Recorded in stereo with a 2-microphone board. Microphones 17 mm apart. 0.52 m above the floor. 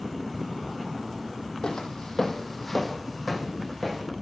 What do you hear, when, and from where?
1.6 s footsteps: 60° left (ahead or behind), 1.4 m; by 4.0 s 15° right (ahead or behind), 3 m